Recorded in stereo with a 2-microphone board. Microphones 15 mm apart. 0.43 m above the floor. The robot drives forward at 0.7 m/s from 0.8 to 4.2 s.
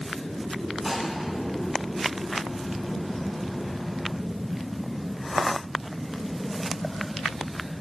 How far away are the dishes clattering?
About 2.5 m.